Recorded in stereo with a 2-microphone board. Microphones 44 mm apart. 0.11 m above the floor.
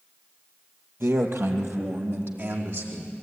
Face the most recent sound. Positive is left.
turn(degrees=-65)  # may be behind; listen again after turning